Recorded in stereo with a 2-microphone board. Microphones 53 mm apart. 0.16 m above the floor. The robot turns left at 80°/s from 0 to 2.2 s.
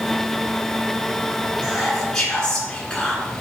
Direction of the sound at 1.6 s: 150° right.